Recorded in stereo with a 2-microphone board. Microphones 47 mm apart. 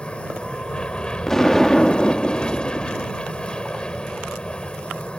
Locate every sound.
0.0 s an aircraft: 20° left (ahead or behind)
1.3 s an explosion: 10° left (ahead or behind)